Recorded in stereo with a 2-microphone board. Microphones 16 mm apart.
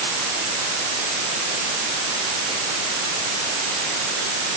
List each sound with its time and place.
Only background noise.